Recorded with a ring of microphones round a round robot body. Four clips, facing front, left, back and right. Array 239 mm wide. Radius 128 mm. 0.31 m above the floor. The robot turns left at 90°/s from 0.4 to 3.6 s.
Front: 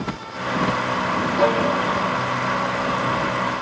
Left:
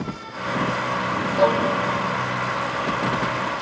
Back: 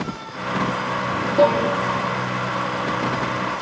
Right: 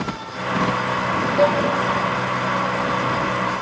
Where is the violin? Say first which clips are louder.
Right 1 dB, back 3 dB; 145° right, 5 m; by 1.7 s 170° right, 5 m.